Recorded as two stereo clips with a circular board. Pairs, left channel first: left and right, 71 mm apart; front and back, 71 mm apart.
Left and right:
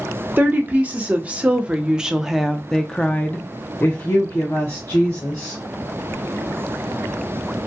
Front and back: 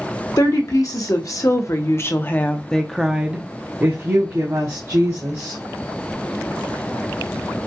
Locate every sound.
0.4 s a woman speaking: 25° right, 1.4 m; by 5.6 s 145° left, 1.6 m